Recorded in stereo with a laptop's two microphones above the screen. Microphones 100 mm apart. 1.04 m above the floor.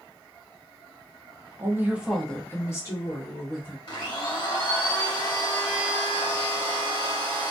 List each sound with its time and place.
1.6 s a woman speaking: 30° right (ahead or behind), 0.9 m; by 3.8 s 50° left (ahead or behind), 1.6 m
3.9 s a blender: 55° left (ahead or behind), 1.0 m